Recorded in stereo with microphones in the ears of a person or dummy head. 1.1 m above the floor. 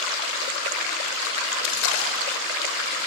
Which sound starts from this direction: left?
A splash, at 1.6 s.